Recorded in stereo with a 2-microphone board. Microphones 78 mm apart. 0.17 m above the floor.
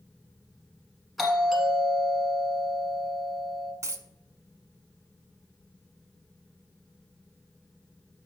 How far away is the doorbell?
About 2.5 m.